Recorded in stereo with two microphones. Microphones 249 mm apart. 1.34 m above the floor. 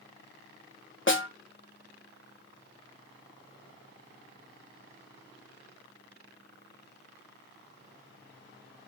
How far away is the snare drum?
About 1.3 m.